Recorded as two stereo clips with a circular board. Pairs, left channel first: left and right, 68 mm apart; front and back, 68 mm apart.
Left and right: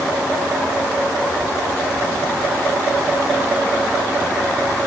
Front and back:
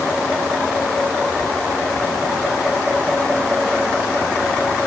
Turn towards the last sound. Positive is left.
No sound to turn to.